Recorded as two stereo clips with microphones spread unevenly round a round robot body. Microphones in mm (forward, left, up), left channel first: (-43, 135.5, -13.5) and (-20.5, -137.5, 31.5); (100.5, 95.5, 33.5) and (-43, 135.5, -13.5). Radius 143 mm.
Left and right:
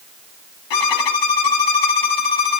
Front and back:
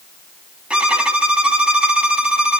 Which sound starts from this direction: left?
A violin, at 0.7 s.